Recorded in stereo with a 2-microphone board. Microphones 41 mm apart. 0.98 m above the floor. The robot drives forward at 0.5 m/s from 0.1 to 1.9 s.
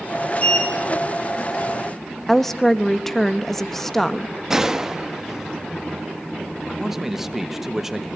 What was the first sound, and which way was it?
A sliding door, 40° left (ahead or behind).